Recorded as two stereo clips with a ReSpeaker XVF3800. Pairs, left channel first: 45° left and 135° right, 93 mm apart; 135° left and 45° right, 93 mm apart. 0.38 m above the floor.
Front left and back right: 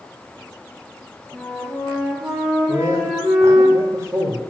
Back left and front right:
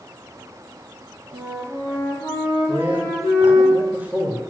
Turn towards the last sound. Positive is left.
turn(degrees=-105)